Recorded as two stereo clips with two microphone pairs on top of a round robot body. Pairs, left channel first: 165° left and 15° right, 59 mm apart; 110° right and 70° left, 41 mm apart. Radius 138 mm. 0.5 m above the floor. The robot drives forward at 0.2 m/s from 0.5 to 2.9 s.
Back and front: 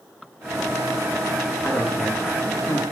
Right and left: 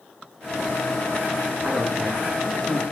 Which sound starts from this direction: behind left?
A man speaking, at 1.6 s.